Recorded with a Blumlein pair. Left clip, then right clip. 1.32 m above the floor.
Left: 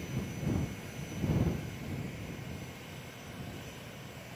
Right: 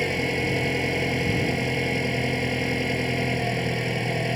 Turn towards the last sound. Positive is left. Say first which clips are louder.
# right 17 dB
turn(degrees=-50)